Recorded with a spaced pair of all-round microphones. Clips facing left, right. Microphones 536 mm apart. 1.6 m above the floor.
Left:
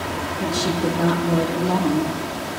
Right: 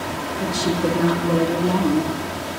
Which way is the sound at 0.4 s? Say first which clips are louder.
Right 1 dB; centre (ahead or behind).